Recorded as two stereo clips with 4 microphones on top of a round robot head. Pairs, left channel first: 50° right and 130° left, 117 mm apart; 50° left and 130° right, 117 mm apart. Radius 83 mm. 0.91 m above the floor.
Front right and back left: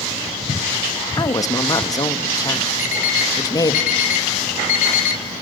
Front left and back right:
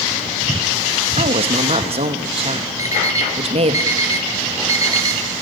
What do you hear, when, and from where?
1.2 s a woman speaking: 105° right, 1.6 m
2.8 s an alarm clock: 65° right, 2.5 m